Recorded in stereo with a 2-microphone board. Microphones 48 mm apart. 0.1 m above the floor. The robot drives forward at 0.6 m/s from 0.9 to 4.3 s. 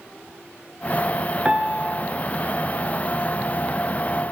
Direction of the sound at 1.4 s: 25° right (ahead or behind).